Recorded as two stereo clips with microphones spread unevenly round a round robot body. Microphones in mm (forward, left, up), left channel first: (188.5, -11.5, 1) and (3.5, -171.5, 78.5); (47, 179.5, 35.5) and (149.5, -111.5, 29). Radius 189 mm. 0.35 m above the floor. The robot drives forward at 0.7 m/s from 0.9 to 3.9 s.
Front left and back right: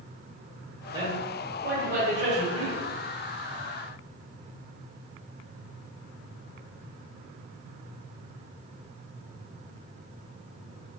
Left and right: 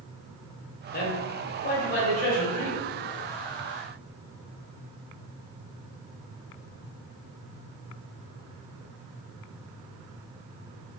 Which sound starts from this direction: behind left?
A man speaking, at 0.9 s.